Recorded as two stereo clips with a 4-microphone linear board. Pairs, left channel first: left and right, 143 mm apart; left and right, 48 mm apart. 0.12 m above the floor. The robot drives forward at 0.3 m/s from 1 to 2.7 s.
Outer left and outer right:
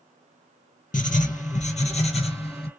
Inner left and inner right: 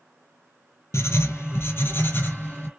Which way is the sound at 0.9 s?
65° left (ahead or behind).